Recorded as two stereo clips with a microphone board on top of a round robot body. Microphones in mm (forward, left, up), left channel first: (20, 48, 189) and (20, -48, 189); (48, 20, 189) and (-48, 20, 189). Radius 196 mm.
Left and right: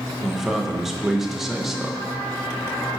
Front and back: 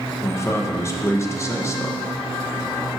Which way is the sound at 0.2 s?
5° right.